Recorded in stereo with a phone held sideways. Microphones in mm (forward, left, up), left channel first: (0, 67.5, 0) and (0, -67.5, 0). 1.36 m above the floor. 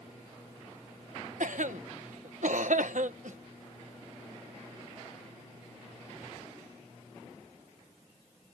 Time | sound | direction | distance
1.4 | a cough | 75° right (ahead or behind) | ?